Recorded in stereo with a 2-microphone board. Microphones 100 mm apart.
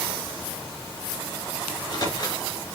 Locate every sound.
1.7 s a microwave: 45° left (ahead or behind), 1.9 m